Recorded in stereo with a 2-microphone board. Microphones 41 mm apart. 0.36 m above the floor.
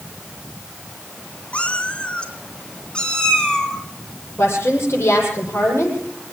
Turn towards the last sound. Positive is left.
turn(degrees=80)